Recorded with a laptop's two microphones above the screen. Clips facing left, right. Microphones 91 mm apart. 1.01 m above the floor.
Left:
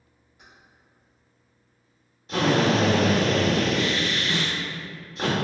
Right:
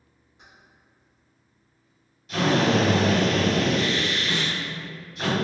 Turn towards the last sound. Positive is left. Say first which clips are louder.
# even
turn(degrees=-25)  # may be behind; listen again after turning